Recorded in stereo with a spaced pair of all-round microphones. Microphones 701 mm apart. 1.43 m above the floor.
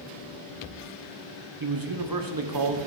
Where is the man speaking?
30° right (ahead or behind), 0.8 m.